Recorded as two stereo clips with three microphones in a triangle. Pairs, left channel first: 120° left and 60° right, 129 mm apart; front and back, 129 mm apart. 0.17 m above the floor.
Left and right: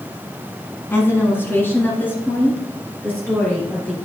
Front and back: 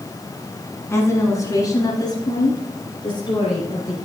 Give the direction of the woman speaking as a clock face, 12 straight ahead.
10 o'clock.